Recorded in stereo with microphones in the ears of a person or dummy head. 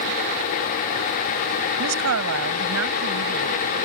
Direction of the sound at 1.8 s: 85° right.